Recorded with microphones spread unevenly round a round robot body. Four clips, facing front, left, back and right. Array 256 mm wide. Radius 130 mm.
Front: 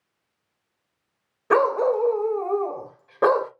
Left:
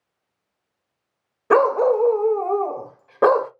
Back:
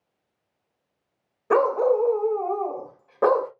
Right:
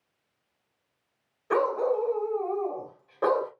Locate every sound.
1.5 s a dog barking: 75° left, 0.8 m